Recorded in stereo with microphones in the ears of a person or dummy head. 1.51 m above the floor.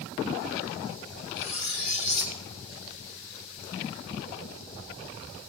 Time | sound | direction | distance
1.4 | cutlery clinking | 45° left (ahead or behind) | 0.8 m